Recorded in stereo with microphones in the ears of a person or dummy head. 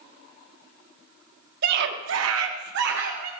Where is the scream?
55° right (ahead or behind), 1.8 m.